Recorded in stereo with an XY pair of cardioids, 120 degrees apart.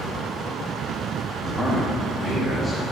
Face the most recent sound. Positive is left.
turn(degrees=15)